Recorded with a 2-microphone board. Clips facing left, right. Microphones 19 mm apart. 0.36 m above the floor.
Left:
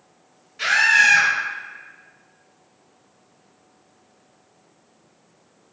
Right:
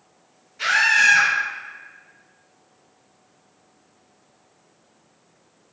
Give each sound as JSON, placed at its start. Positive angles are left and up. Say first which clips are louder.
{"t": 0.6, "sound": "a scream", "louder": "left 1 dB", "side_deg": 30, "distance_m": 1.5}